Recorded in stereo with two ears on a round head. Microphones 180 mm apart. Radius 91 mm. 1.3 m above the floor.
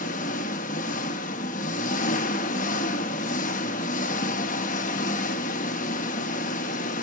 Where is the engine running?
40° left (ahead or behind), 1.0 m.